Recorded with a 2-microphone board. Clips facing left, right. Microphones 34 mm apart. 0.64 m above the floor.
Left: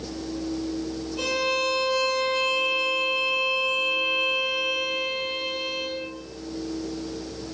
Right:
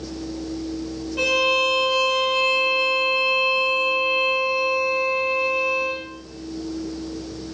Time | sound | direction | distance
1.2 | a violin | 45° right (ahead or behind) | 0.5 m